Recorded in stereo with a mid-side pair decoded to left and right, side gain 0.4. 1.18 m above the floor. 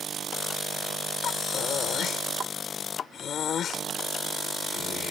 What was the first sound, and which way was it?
Breathing, 65° left.